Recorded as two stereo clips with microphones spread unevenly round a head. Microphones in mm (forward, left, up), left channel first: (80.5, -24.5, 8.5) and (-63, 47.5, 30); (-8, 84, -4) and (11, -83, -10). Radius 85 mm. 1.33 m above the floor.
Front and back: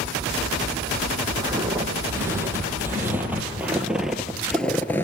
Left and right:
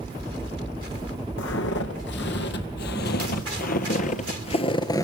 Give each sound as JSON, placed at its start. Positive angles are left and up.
{"t": 1.4, "sound": "footsteps", "azimuth_deg": 85, "distance_m": 3.5}